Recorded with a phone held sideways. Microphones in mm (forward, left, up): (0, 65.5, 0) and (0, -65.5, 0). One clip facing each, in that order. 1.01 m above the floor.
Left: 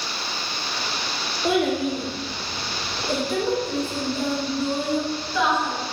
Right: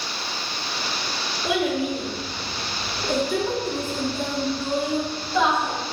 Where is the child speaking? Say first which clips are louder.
Left 2 dB; 50° left (ahead or behind), 1.3 m; by 5.7 s 30° right (ahead or behind), 2 m.